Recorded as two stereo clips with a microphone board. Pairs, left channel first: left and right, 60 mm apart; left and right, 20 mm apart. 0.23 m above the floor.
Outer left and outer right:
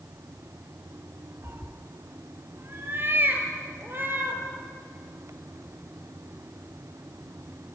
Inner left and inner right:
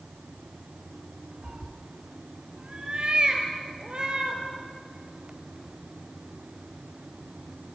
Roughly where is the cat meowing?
Right.